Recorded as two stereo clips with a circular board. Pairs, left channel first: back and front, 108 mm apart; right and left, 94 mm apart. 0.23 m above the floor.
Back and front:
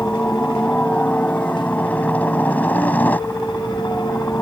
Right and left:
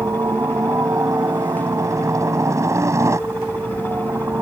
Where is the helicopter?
110° left; by 4.4 s 120° left.